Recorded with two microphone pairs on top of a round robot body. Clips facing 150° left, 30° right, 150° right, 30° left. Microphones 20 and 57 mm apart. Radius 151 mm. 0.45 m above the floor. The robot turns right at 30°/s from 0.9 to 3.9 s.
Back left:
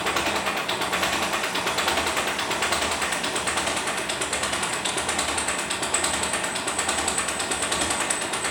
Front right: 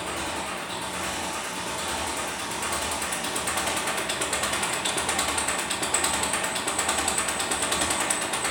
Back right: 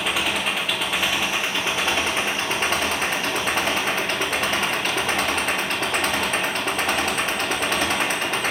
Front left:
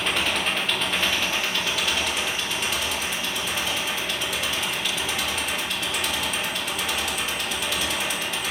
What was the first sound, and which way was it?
An engine running, 140° left.